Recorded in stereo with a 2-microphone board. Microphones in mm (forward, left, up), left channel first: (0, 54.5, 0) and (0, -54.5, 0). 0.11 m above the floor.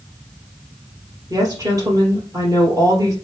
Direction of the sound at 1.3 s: 35° right (ahead or behind).